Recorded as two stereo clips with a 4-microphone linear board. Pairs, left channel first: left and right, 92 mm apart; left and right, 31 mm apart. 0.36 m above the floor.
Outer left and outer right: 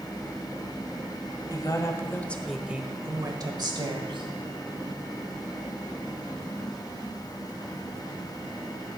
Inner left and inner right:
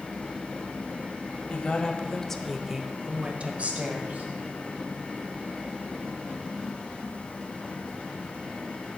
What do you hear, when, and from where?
1.5 s a woman speaking: 45° left (ahead or behind), 1.8 m; by 4.3 s 65° right (ahead or behind), 2.5 m